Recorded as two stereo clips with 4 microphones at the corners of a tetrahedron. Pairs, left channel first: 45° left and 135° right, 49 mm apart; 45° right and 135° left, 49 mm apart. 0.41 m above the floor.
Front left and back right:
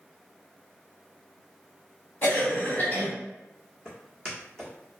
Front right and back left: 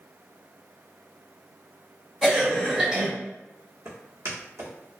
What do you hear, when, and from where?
2.2 s a cough: 55° left, 1.7 m
3.9 s footsteps: 120° left, 1.0 m